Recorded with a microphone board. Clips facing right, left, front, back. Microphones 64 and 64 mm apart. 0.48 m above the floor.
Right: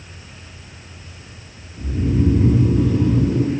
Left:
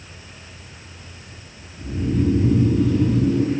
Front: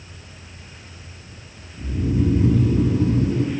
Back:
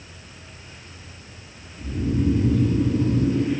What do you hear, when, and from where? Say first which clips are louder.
1.8 s snoring: right 2 dB, front 2 dB; 70° right, 1.0 m